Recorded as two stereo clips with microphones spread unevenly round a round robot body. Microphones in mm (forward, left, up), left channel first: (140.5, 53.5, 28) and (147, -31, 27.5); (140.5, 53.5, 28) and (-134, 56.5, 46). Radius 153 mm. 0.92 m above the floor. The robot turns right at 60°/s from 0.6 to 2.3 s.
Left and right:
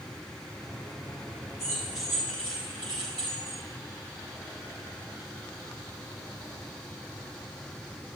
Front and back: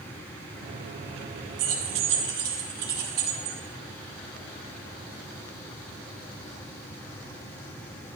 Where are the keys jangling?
165° left, 1.7 m; by 3.6 s 150° right, 1.7 m.